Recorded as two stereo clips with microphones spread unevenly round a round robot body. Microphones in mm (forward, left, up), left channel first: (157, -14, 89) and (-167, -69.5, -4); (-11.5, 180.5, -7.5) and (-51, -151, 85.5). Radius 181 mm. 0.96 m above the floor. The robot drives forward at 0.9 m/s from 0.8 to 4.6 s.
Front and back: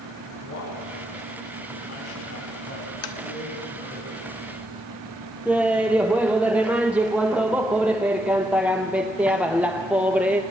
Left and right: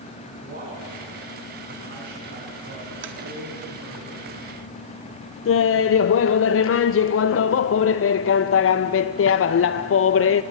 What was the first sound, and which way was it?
A man speaking, 35° right.